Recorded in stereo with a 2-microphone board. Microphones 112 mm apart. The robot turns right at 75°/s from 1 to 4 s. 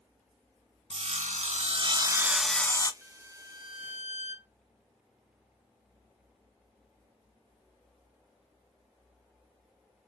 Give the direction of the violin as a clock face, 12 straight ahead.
6 o'clock.